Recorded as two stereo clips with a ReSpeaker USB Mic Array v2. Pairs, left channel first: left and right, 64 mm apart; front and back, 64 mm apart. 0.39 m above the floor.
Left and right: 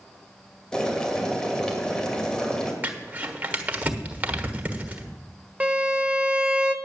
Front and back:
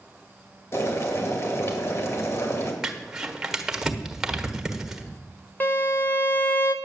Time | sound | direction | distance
0.7 | boiling | 15° left | 2 m
2.8 | crumpling | 105° right | 1.3 m
5.6 | a violin | 30° right | 0.9 m